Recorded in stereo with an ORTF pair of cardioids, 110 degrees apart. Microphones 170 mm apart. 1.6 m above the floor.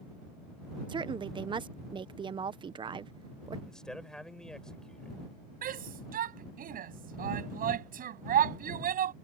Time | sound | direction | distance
0.9 | a woman speaking | 30° right | ?
3.7 | a man speaking | 5° left | ?
5.6 | a shout | 55° right | ?